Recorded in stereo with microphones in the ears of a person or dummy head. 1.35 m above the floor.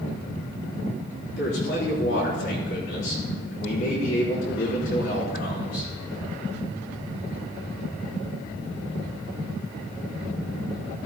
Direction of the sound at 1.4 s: 65° left (ahead or behind).